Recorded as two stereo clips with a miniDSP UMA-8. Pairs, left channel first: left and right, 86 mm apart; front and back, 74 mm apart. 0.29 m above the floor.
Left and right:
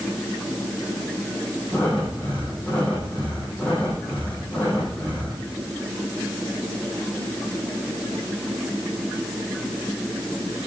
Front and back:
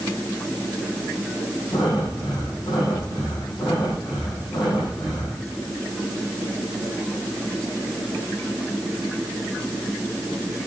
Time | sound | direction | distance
1.7 | breathing | 15° left | 6.5 m